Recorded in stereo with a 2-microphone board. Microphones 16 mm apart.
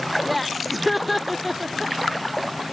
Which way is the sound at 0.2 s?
5° right (ahead or behind).